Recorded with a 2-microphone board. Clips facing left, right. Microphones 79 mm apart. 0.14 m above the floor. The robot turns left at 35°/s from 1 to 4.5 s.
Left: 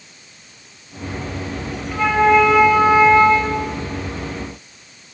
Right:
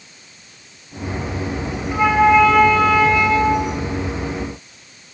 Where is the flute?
165° right, 9.5 m; by 3.8 s 130° left, 9.5 m.